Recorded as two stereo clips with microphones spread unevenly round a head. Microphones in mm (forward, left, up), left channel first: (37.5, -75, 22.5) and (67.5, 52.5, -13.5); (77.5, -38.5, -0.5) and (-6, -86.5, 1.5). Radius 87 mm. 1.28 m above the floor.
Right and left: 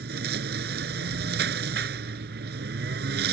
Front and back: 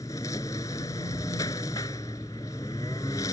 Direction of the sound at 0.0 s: 100° left.